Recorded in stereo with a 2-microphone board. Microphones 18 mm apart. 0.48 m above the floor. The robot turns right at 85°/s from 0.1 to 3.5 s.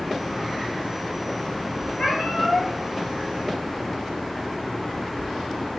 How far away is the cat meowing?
About 4.5 m.